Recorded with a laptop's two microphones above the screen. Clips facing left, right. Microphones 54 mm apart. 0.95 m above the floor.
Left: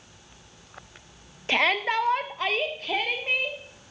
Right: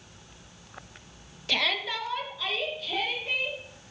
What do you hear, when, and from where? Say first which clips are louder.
1.5 s a shout: left 6 dB; 30° left (ahead or behind), 0.9 m; by 3.6 s 40° left (ahead or behind), 1.7 m